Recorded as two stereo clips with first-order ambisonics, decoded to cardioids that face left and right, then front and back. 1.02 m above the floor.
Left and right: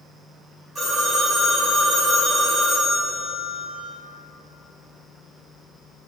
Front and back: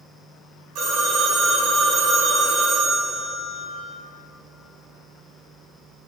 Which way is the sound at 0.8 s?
170° right.